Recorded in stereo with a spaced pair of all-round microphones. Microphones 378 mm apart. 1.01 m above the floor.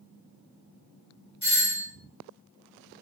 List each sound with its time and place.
1.4 s a doorbell: 45° left (ahead or behind), 1.9 m